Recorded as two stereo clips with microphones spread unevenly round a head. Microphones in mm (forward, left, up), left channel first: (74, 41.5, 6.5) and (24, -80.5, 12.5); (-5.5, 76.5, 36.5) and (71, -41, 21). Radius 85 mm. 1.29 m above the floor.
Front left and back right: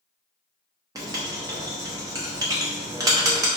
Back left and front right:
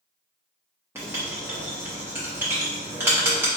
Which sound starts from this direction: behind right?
Writing, at 0.9 s.